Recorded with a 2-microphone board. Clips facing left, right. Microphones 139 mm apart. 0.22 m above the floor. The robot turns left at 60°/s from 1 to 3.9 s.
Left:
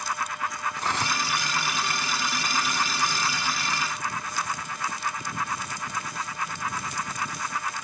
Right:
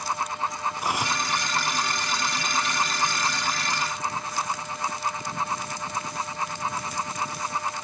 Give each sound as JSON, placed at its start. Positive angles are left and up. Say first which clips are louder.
{"t": 0.8, "sound": "cutlery clinking", "louder": "even", "side_deg": -10}